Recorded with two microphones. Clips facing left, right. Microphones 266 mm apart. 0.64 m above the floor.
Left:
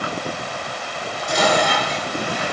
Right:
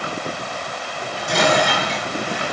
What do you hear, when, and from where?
1.0 s dishes clattering: 70° right (ahead or behind), 6 m